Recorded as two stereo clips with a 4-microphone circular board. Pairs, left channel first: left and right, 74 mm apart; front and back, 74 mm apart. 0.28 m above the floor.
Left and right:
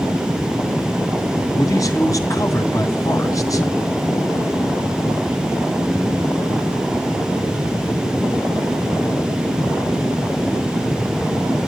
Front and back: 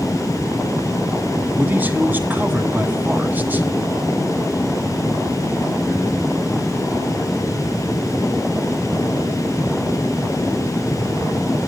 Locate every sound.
1.5 s a man speaking: 120° left, 2.5 m